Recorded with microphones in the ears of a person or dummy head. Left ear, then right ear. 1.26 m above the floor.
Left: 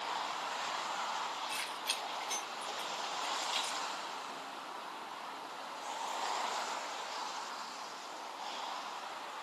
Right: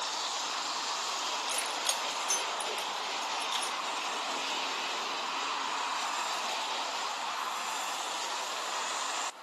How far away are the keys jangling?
About 1.5 m.